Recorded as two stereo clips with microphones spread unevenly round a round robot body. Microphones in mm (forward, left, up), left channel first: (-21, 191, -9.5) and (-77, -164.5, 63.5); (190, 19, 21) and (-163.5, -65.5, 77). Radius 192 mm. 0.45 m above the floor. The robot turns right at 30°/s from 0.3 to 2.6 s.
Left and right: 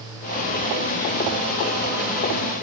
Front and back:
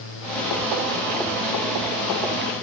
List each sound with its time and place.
Only background noise.